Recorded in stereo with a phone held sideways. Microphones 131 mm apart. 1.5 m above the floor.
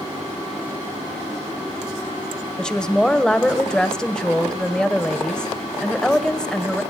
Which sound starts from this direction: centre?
A woman speaking, at 2.6 s.